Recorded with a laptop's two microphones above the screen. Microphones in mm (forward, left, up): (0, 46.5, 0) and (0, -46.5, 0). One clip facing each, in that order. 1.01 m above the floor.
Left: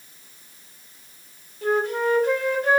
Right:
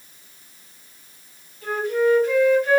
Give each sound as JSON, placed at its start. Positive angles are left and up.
{"t": 1.6, "sound": "a flute", "side_deg": 60, "distance_m": 1.8}